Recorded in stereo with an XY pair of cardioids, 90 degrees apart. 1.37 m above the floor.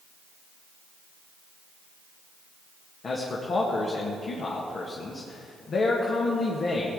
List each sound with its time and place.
3.0 s a man speaking: 55° left, 1.9 m